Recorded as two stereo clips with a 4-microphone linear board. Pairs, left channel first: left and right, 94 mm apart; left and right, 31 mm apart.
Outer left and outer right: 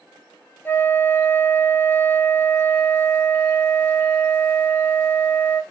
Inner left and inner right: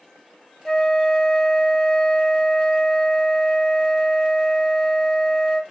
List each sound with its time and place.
0.7 s a flute: 25° left (ahead or behind), 0.7 m